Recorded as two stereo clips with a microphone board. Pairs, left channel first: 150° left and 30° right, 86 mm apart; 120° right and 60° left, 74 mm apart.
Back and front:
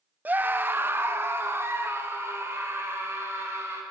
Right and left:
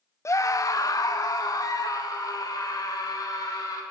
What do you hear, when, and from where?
0.2 s a scream: 95° right, 0.7 m; by 3.8 s 90° right, 4 m